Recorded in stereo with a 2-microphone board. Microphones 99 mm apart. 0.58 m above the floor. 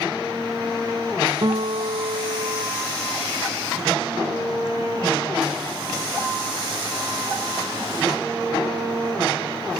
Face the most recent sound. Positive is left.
turn(degrees=-55)  # may be behind; listen again after turning